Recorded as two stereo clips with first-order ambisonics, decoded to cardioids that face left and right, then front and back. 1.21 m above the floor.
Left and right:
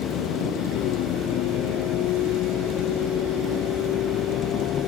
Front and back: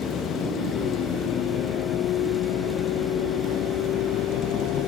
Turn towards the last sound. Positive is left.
turn(degrees=40)